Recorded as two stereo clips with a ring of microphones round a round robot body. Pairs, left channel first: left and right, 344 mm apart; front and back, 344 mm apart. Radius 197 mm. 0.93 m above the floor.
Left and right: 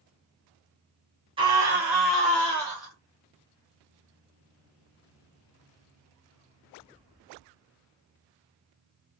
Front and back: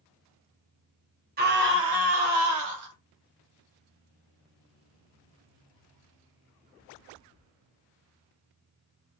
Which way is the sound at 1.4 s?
150° right.